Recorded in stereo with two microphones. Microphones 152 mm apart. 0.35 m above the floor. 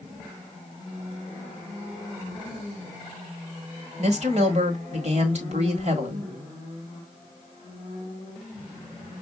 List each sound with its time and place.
4.0 s a woman speaking: 50° right (ahead or behind), 1.5 m